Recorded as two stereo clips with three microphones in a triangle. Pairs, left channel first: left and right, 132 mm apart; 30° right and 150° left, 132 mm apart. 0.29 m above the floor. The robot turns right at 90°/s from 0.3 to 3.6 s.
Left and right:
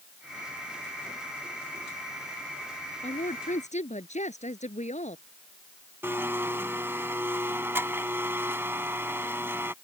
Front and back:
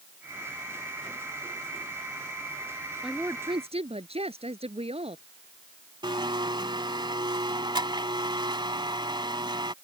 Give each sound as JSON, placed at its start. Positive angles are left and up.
{"t": 3.0, "sound": "a woman speaking", "azimuth_deg": 60}
{"t": 6.0, "sound": "a blender", "azimuth_deg": -160}